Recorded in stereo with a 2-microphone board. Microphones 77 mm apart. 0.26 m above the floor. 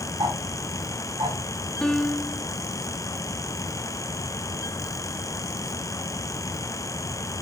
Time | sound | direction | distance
0.2 | ticking | 85° right | 6 m
1.8 | a piano | 10° left (ahead or behind) | 0.9 m